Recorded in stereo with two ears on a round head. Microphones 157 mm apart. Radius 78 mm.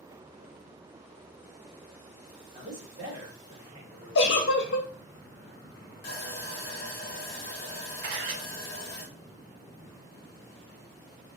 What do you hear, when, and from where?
2.5 s a man speaking: 45° right (ahead or behind), 1.5 m
4.2 s a giggle: 75° left (ahead or behind), 0.6 m
6.0 s sawing: 55° left (ahead or behind), 0.9 m
8.0 s a camera shutter: 70° right (ahead or behind), 1.9 m